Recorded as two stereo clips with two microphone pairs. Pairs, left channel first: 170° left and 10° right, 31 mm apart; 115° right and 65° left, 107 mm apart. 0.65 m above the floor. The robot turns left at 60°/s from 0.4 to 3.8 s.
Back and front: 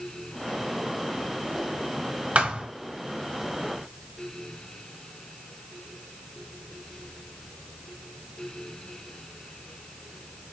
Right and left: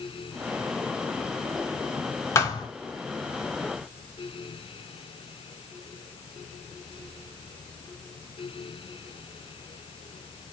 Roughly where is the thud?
Ahead right.